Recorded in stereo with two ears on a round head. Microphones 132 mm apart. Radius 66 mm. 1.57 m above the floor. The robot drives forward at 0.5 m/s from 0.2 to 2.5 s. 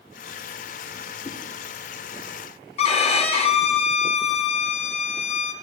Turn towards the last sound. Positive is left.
turn(degrees=40)  # may be behind; listen again after turning